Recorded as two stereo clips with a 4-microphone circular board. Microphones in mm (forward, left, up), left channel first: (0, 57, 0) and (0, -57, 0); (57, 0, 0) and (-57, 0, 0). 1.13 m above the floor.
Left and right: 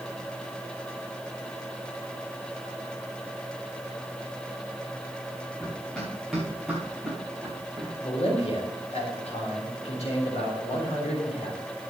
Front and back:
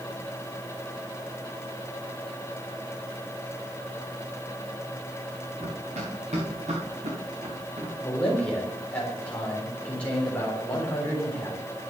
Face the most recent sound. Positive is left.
turn(degrees=80)